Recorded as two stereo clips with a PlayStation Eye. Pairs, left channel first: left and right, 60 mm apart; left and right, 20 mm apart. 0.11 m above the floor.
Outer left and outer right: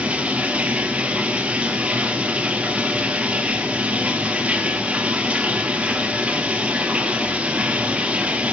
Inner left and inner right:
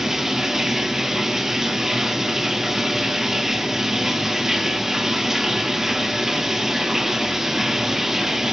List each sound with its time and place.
0.0 s running water: 20° right (ahead or behind), 1.4 m